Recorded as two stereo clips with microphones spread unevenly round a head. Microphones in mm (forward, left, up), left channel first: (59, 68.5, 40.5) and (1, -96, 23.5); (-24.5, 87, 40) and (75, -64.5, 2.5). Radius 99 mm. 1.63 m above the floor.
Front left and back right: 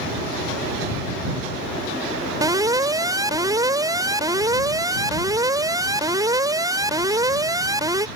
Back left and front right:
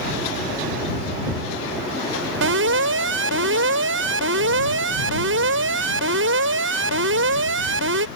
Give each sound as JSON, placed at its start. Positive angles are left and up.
{"t": 2.4, "sound": "an alarm", "azimuth_deg": -40}